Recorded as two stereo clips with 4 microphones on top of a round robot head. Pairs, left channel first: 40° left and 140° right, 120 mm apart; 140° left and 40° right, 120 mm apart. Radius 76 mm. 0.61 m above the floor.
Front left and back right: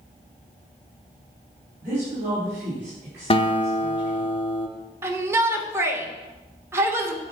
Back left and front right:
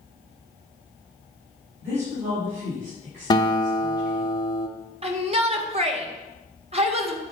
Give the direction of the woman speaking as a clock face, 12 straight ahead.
2 o'clock.